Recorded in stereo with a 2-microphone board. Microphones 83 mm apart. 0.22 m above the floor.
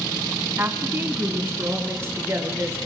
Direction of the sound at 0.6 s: 25° right (ahead or behind).